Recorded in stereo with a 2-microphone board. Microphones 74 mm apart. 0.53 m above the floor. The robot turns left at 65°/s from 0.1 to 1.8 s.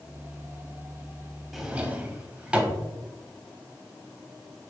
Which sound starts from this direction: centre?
A drawer, at 1.5 s.